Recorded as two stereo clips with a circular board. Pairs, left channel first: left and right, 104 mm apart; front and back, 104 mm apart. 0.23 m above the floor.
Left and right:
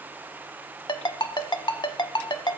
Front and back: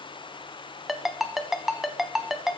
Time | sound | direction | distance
0.9 | a ringtone | 95° left | 0.6 m